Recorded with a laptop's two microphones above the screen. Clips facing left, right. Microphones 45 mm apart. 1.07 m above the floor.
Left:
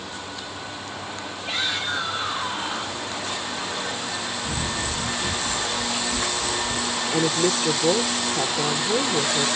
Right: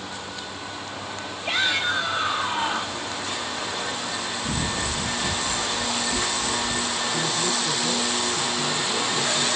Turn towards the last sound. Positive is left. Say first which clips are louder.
# left 7 dB
turn(degrees=65)  # may be behind; listen again after turning